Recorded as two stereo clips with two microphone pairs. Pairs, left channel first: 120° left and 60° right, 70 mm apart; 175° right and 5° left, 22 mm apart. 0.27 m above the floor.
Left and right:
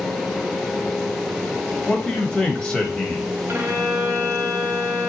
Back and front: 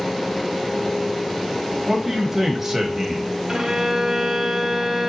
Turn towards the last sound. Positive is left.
turn(degrees=-25)